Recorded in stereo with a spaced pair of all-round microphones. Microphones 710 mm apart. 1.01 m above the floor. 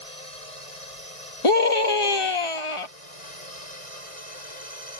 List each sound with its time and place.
0.0 s a drone: 50° right (ahead or behind)
1.4 s a scream: 45° left (ahead or behind)